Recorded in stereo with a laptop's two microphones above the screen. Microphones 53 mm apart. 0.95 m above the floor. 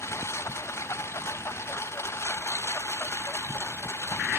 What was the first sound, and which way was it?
A lawn mower, 55° left (ahead or behind).